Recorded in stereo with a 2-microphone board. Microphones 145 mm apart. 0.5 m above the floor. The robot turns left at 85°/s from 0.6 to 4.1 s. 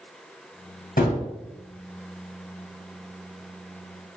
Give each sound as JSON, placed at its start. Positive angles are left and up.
{"t": 1.0, "sound": "a gunshot", "side_deg": 70, "distance_m": 1.7}